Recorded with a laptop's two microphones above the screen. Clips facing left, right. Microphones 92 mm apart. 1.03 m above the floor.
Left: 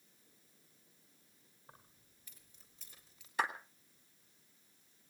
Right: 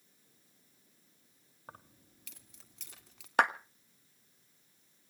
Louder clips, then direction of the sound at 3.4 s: Right 8 dB; 65° right (ahead or behind).